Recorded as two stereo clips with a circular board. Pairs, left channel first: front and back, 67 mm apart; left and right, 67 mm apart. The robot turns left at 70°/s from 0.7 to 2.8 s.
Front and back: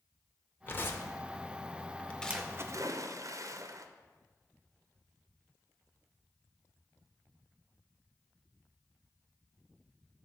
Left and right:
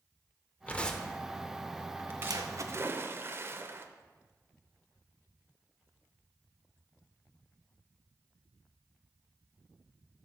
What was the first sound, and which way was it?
Tearing paper, 35° left.